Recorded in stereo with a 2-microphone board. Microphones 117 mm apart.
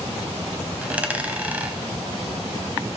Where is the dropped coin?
10° right (ahead or behind), 1.2 m.